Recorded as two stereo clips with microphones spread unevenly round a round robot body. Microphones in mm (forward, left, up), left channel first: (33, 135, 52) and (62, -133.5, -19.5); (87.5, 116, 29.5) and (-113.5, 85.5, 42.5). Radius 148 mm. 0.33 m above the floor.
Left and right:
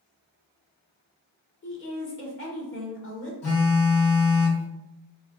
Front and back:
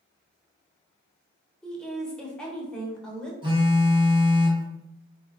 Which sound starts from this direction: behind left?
A phone buzzing, at 3.4 s.